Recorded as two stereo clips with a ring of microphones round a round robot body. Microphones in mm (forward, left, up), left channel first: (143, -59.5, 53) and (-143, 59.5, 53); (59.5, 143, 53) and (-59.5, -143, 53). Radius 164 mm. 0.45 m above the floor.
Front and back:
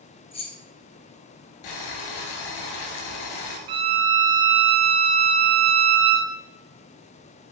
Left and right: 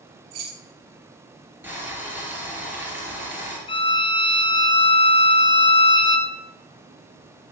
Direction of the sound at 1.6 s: 30° right.